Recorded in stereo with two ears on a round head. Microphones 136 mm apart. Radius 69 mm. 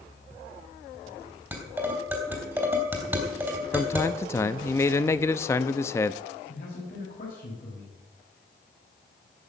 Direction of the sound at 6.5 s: 65° left (ahead or behind).